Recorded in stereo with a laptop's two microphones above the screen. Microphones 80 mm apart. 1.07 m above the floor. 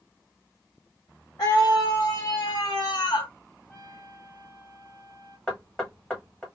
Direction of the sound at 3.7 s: 35° left (ahead or behind).